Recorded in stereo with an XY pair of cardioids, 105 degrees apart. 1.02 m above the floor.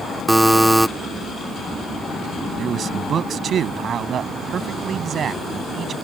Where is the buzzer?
5° right.